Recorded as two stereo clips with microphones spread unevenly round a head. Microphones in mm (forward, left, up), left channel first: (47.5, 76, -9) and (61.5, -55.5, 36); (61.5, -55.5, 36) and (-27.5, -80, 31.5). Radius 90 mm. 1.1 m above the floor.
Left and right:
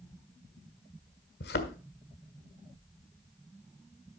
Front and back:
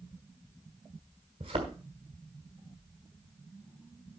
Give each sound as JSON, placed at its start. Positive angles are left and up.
{"t": 1.4, "sound": "a thud", "azimuth_deg": 135, "distance_m": 1.2}